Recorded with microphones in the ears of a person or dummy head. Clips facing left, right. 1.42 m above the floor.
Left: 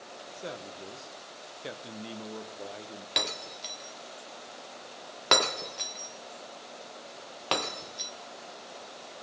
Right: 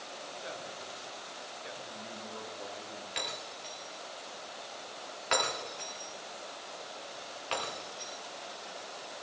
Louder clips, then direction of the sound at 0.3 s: Left 5 dB; 50° left (ahead or behind).